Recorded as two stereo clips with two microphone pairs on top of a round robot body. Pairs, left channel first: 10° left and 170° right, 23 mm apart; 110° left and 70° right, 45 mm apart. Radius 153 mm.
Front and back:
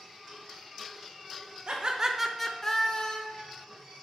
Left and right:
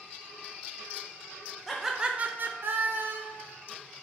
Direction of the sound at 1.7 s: Straight behind.